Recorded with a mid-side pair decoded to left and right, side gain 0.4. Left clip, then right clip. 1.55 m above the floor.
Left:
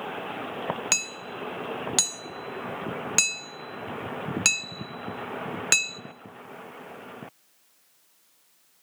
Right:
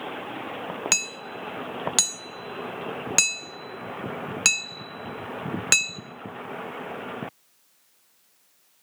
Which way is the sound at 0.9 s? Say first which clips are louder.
Right 5 dB; 15° right.